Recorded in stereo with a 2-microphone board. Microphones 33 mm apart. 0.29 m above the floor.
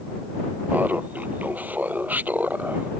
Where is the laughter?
65° right (ahead or behind).